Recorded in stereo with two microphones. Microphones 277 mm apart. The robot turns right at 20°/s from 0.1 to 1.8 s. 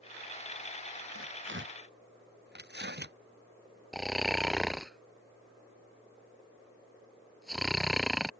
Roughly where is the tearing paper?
Right.